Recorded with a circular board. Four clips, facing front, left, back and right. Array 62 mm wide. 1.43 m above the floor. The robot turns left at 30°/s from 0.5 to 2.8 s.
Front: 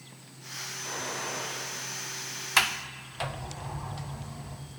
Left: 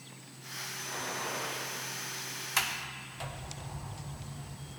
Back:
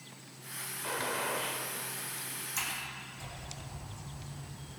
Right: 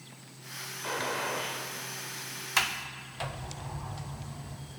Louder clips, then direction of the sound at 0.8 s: Right 6 dB, back 2 dB; 110° right.